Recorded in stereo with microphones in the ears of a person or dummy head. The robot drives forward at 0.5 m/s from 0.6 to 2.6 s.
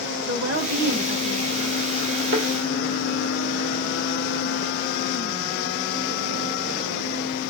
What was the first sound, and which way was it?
A woman speaking, 55° right (ahead or behind).